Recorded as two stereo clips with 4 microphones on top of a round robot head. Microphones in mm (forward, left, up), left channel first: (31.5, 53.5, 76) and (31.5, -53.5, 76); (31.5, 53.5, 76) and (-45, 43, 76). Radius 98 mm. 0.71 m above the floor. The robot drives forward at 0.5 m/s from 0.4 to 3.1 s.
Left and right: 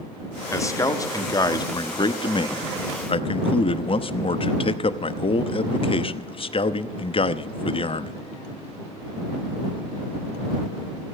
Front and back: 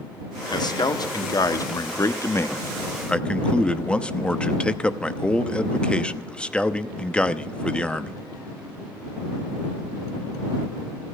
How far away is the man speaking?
About 1.7 m.